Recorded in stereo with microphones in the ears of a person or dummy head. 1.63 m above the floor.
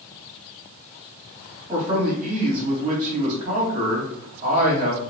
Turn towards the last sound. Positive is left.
turn(degrees=-45)  # may be behind; listen again after turning